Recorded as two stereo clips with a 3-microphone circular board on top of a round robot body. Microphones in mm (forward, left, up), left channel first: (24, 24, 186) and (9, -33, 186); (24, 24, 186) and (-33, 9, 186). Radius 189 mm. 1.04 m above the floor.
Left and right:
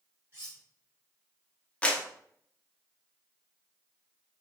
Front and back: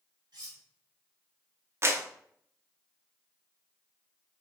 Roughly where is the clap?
Behind left.